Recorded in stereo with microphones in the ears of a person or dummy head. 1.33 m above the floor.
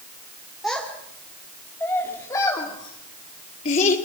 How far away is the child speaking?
About 3 m.